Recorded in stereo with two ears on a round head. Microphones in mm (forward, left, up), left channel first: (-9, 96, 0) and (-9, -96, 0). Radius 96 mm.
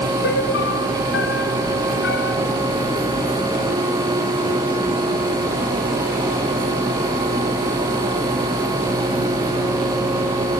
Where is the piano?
55° left (ahead or behind).